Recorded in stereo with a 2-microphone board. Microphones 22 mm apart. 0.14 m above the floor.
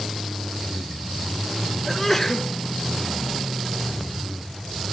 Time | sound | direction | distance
1.9 | a sneeze | 15° left (ahead or behind) | 1.2 m